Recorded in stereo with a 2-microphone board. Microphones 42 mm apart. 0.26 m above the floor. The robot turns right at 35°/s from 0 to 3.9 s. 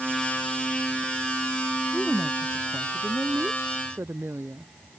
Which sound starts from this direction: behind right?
A woman speaking, at 1.9 s.